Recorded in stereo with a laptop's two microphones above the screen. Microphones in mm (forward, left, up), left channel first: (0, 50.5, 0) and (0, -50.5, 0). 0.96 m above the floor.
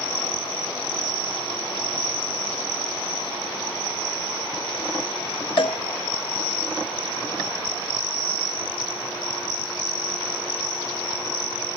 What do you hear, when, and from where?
5.6 s a cowbell: 60° left (ahead or behind), 0.7 m